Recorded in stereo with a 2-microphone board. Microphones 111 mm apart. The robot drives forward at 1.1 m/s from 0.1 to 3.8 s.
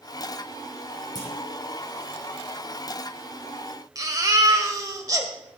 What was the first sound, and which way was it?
A clunk, 35° left (ahead or behind).